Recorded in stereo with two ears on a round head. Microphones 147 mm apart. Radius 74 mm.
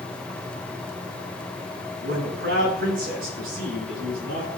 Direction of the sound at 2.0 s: 55° right (ahead or behind).